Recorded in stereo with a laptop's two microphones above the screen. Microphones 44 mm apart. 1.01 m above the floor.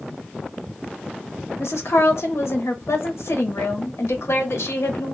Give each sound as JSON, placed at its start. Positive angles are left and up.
{"t": 1.6, "sound": "a woman speaking", "side_deg": 85, "distance_m": 0.8}